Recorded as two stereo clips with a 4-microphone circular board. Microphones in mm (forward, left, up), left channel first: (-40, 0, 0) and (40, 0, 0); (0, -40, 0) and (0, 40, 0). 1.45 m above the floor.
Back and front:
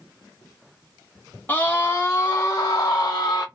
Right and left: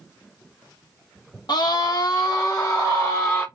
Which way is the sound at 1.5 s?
115° right.